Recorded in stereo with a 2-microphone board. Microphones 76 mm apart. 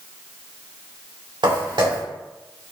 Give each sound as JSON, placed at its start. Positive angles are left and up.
{"t": 1.4, "sound": "footsteps", "side_deg": -80, "distance_m": 2.5}